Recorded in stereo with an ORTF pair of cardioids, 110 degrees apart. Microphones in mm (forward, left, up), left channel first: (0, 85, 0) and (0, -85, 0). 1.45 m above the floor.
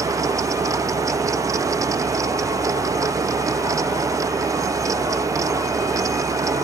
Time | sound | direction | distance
0.0 | a fan | 20° right | 0.7 m